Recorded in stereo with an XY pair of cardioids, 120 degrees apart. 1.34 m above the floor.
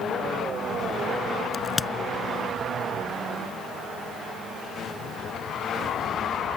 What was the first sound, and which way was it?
A crack, 15° left.